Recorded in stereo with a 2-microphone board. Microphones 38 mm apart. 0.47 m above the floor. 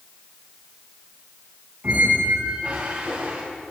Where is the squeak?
30° right (ahead or behind), 3 m.